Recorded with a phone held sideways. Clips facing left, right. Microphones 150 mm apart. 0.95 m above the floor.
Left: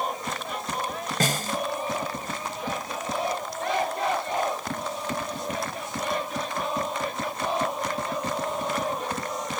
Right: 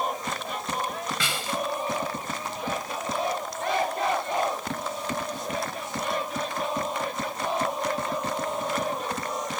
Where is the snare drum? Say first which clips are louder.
Left 4 dB; 45° left (ahead or behind).